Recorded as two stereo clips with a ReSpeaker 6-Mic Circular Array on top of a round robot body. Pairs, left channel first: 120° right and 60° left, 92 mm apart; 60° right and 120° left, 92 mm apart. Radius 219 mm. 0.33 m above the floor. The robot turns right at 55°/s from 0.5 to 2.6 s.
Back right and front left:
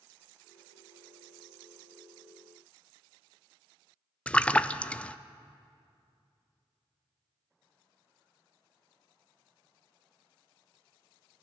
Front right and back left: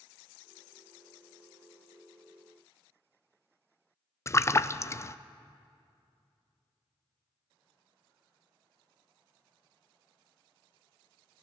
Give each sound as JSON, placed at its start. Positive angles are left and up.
{"t": 4.3, "sound": "a splash", "azimuth_deg": -55, "distance_m": 0.6}